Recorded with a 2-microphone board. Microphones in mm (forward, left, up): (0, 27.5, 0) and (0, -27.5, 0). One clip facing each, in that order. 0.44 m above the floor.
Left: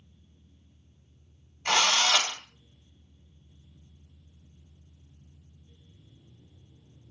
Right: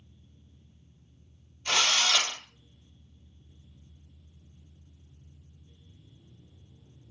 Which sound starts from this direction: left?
A drill, at 1.6 s.